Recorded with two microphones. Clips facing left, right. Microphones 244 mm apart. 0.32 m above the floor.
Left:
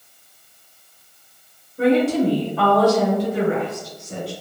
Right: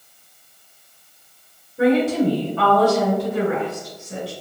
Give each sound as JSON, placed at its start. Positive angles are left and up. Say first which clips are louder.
{"t": 1.8, "sound": "a woman speaking", "louder": "even", "side_deg": -10, "distance_m": 1.4}